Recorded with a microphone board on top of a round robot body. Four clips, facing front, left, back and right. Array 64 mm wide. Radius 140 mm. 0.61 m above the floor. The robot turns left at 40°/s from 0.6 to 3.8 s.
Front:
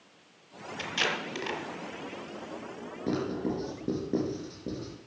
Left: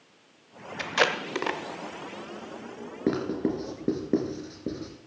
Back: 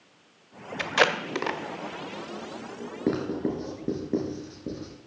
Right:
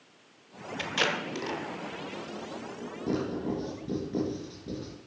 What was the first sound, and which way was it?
Tape being pulled, 160° left.